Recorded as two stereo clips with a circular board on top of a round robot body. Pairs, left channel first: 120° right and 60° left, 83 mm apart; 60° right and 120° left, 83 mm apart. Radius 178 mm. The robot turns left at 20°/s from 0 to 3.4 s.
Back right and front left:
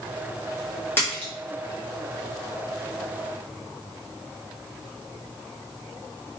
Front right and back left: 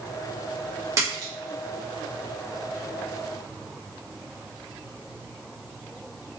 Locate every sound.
1.0 s a splash: 175° left, 0.7 m; by 1.3 s 170° left, 0.7 m